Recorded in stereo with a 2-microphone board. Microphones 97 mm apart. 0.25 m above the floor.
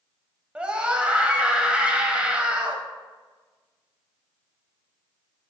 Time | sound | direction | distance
0.6 | a scream | 15° right (ahead or behind) | 0.9 m